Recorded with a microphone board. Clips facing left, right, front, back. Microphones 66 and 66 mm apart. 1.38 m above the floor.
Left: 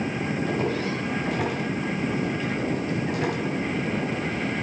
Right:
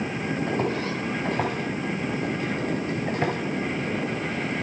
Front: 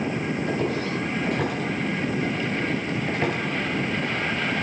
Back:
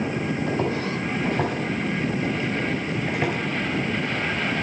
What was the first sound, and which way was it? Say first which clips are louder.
Footsteps: even, even; 140° right.